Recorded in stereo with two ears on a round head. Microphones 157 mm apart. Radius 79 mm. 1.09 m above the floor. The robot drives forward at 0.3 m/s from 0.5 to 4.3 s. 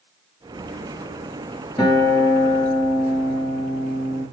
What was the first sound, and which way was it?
A guitar, 20° left (ahead or behind).